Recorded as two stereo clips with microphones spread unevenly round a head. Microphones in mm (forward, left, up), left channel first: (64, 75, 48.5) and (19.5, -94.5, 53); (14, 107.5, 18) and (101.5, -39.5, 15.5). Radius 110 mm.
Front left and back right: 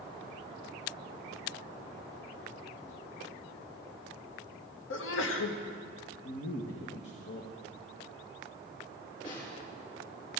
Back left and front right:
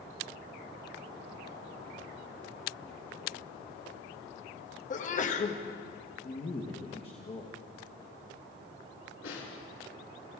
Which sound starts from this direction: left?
A sneeze, at 4.9 s.